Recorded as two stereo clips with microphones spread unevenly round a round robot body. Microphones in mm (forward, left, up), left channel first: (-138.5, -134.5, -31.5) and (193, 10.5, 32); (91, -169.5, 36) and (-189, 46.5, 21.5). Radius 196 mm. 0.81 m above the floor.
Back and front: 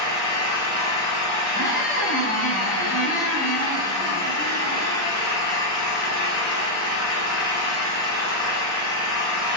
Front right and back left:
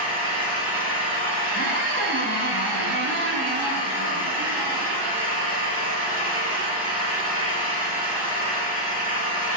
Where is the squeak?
165° left, 0.8 m.